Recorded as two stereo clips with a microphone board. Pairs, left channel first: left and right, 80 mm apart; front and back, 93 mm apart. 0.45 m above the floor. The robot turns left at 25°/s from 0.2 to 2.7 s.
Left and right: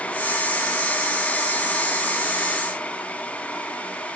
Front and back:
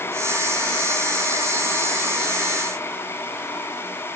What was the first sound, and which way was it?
Only background noise.